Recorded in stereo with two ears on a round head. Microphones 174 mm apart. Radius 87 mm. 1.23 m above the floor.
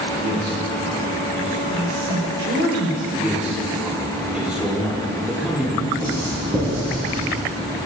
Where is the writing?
30° right (ahead or behind), 6 m.